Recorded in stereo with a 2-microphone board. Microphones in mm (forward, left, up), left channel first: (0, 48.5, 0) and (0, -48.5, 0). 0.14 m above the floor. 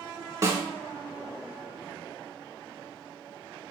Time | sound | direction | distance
0.4 | a snare drum | 30° right (ahead or behind) | 0.7 m